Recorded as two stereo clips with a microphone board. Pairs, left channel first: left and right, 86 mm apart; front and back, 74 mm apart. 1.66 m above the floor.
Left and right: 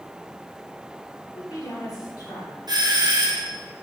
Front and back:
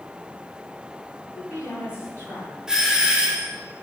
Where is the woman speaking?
50° left, 2 m.